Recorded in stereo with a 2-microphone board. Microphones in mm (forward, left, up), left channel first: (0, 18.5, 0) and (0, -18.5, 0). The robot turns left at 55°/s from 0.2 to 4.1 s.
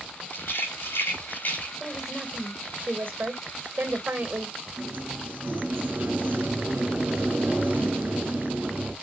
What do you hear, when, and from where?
0.3 s a rattle: 60° left (ahead or behind), 4.5 m; by 1.7 s 40° left (ahead or behind), 4.5 m
1.8 s a woman speaking: straight ahead, 2.5 m; by 4.5 s 125° right, 2.5 m
4.8 s a sliding door: 55° right (ahead or behind), 3.5 m